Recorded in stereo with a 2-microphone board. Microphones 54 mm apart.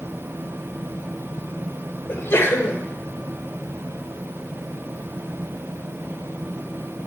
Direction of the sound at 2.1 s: 40° left (ahead or behind).